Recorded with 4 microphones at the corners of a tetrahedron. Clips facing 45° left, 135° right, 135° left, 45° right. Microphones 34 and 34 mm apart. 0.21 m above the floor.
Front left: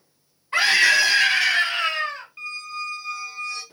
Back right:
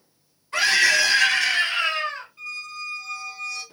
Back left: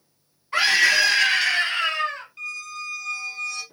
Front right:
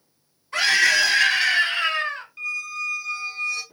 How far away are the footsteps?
No footsteps in this recording.